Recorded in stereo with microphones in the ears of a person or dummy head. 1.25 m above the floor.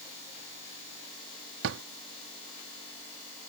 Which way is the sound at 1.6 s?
70° right (ahead or behind).